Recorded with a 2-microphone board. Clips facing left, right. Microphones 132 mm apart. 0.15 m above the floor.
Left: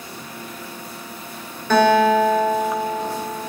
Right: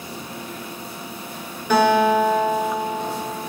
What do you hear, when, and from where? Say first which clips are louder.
1.7 s a guitar: left 2 dB; 10° right (ahead or behind), 1.3 m